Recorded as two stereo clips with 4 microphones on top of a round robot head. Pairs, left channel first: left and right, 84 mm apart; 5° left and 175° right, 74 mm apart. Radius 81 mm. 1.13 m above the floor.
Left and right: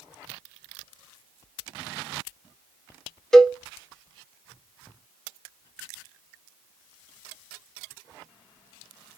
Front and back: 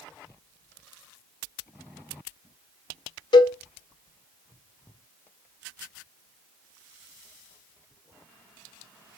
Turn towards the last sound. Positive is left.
turn(degrees=5)